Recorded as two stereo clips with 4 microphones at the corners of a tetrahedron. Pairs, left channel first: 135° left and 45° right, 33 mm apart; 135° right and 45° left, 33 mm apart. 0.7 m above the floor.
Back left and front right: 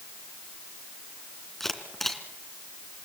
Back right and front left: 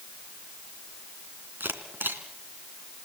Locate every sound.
1.6 s a camera shutter: 55° left, 2.5 m